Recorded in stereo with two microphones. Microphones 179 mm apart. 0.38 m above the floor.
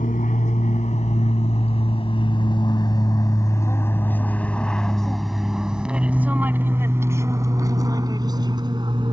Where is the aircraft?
50° left (ahead or behind); by 9.1 s 30° right (ahead or behind).